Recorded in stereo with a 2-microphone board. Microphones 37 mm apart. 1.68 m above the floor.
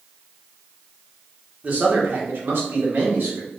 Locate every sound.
1.6 s a man speaking: 45° right (ahead or behind), 1.0 m; by 3.5 s 70° right (ahead or behind), 1.3 m